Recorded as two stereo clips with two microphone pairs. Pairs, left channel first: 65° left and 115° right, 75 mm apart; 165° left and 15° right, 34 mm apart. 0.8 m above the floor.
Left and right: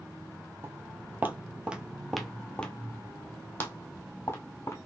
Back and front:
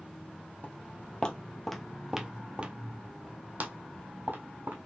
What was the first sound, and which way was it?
Footsteps, 160° right.